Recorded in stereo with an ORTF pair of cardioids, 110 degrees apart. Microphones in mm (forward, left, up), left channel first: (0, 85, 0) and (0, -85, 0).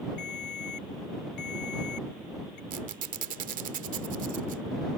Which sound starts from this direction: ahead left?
A ringtone, at 0.2 s.